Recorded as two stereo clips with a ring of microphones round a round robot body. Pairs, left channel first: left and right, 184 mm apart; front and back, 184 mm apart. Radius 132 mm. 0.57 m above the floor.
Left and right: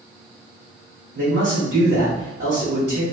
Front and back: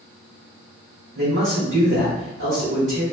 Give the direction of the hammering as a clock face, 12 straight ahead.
I don't hear hammering.